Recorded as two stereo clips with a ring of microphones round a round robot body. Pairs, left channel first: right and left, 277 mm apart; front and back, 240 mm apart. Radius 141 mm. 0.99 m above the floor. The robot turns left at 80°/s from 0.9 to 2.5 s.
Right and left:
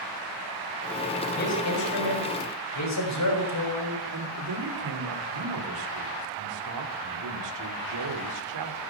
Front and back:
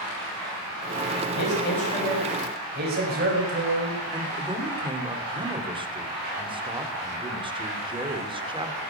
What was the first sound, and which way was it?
A man speaking, 30° right.